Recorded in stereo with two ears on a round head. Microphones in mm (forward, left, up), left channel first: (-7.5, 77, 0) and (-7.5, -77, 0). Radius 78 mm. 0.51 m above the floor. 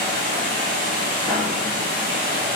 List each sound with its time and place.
0.0 s running water: 50° right (ahead or behind), 0.8 m
1.2 s writing: 5° left (ahead or behind), 1.4 m